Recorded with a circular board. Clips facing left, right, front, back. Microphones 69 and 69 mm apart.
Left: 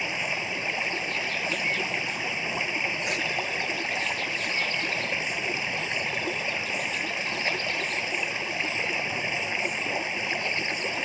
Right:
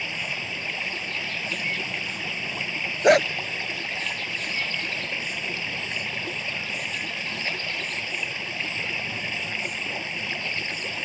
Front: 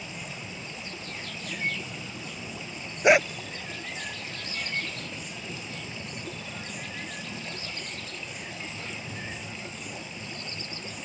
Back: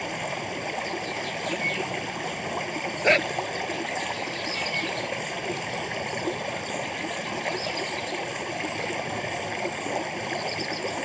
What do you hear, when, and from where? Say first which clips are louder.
0.0 s running water: left 2 dB, back 9 dB; 160° left
3.0 s a dog barking: right 13 dB, front 2 dB; 80° right